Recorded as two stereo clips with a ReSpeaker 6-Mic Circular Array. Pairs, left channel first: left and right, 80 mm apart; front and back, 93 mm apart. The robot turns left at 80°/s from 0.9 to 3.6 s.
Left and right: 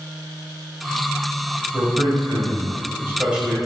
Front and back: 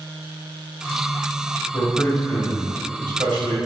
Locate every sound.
1.7 s a man speaking: 40° right, 3 m; by 3.6 s 175° left, 3 m